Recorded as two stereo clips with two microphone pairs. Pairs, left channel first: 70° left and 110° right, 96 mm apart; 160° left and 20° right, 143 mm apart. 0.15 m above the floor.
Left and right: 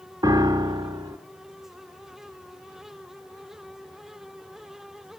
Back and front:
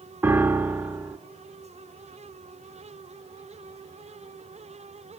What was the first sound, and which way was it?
A piano, 95° right.